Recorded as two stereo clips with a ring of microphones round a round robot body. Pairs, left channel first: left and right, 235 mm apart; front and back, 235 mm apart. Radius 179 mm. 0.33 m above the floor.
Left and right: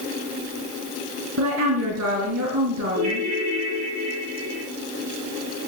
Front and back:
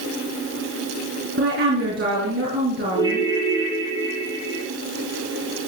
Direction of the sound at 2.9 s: 105° right.